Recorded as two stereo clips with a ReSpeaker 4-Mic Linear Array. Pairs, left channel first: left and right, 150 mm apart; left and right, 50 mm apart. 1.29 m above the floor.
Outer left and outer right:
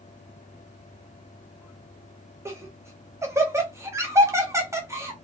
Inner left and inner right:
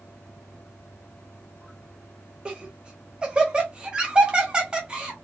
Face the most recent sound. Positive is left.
turn(degrees=-20)  # may be behind; listen again after turning